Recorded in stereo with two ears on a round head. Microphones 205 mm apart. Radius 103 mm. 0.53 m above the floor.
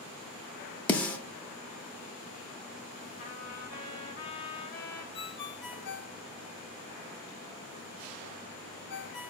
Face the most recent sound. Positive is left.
turn(degrees=45)  # may be behind; listen again after turning